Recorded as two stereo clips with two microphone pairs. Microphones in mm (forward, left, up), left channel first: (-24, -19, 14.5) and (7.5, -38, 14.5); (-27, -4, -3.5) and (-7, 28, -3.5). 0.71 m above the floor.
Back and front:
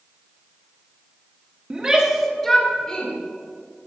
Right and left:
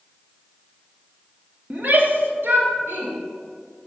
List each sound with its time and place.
1.7 s a shout: 20° left, 1.5 m; by 3.1 s 80° left, 2.5 m